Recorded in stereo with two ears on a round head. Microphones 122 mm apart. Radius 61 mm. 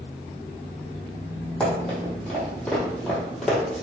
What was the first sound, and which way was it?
Running footsteps, 5° left (ahead or behind).